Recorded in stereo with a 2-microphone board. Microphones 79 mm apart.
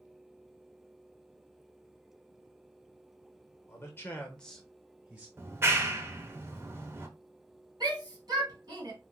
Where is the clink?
No clink in this recording.